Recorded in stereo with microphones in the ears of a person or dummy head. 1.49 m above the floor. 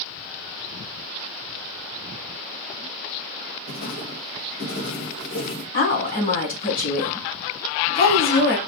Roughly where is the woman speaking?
Left.